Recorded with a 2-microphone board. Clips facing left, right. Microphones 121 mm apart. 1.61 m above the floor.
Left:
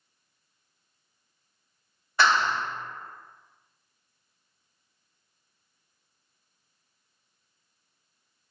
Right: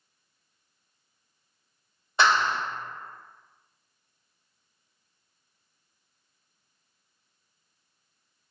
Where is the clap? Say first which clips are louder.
Even; 20° right (ahead or behind), 1.4 m.